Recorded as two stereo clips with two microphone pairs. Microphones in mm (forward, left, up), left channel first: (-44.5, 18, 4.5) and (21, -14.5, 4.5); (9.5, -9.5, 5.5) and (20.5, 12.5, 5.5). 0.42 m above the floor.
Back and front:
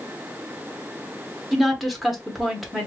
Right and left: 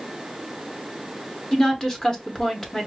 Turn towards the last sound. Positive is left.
turn(degrees=-115)